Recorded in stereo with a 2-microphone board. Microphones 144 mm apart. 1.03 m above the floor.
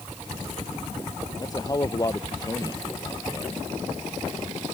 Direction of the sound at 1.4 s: 30° left (ahead or behind).